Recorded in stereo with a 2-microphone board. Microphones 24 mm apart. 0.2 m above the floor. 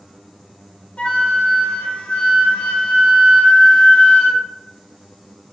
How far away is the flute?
About 0.6 m.